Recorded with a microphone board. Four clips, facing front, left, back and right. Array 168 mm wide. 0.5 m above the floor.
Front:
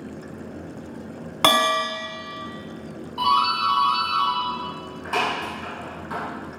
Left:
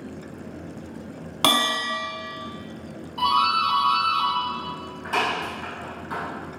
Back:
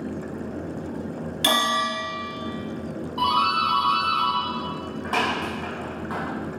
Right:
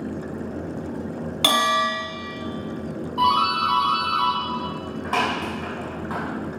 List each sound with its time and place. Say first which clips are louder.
1.4 s a bell: right 2 dB, front 4 dB; 25° left, 1.0 m
3.2 s a doorbell: right 1 dB, front 1 dB; 135° right, 1.4 m